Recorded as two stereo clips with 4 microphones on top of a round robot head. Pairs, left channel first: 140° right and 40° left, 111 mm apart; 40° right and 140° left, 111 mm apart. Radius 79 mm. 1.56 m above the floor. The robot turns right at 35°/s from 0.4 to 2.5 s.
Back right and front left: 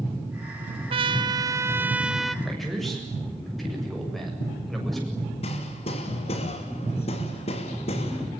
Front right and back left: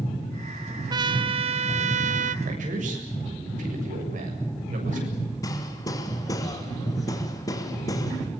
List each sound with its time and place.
0.9 s a trumpet: 80° left, 0.9 m; by 2.4 s 135° left, 0.9 m
2.5 s a man speaking: 130° left, 7.5 m; by 5.1 s 135° left, 7.5 m
5.4 s hammering: 100° right, 3 m